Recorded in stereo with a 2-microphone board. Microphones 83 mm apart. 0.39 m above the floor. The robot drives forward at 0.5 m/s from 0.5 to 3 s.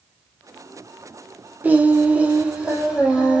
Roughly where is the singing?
Centre.